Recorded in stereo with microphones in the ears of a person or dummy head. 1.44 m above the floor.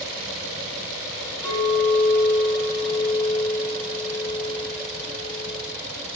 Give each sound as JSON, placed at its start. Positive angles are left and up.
{"t": 1.4, "sound": "a clink", "side_deg": 20, "distance_m": 1.4}